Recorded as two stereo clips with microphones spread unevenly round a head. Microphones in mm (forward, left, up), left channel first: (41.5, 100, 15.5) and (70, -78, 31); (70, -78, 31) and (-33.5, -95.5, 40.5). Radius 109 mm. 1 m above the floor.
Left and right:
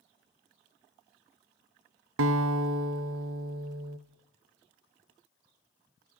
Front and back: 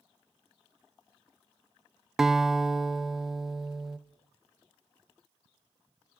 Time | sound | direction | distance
2.2 | a guitar | 85° right | 0.6 m